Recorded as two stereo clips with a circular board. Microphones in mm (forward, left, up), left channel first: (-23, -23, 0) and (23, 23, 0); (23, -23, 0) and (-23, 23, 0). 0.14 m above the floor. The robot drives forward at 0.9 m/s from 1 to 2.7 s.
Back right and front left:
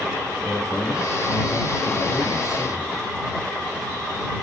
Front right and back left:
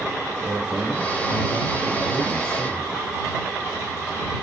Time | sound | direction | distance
0.4 | a man speaking | 175° right | 3 m